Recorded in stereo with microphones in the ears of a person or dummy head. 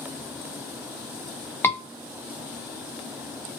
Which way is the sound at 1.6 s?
10° left (ahead or behind).